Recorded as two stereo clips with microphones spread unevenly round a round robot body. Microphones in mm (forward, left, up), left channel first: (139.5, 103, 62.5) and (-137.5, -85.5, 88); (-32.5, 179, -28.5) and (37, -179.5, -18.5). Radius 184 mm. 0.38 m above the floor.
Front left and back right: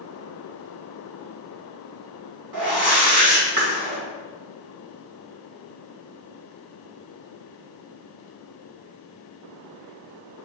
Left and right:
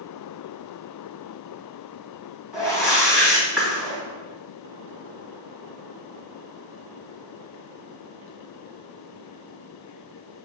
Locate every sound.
2.5 s a whoosh: 165° right, 3 m